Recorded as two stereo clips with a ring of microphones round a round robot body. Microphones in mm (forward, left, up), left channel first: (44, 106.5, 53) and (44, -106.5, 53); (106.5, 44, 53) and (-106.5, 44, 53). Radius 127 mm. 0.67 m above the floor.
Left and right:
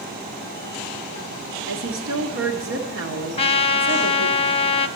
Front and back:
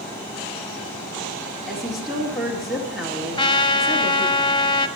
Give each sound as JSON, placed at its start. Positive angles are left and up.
{"t": 1.7, "sound": "a woman speaking", "azimuth_deg": -90, "distance_m": 1.8}
{"t": 3.4, "sound": "a trumpet", "azimuth_deg": 55, "distance_m": 0.9}